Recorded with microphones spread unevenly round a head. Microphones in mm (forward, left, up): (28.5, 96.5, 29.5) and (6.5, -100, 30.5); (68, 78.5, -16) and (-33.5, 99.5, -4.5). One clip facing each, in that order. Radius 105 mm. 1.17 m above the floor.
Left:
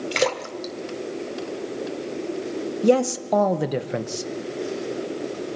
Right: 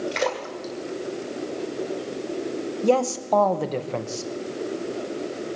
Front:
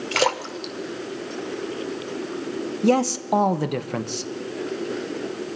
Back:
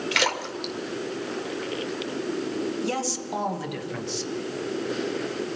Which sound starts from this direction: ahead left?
A splash, at 0.1 s.